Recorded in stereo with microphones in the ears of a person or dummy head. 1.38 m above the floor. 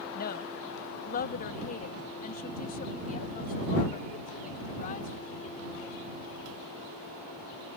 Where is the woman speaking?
50° left (ahead or behind); by 6.0 s 45° left (ahead or behind).